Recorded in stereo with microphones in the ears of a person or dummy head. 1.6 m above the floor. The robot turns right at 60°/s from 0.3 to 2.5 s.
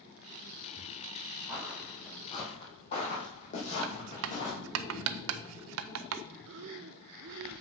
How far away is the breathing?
About 0.5 m.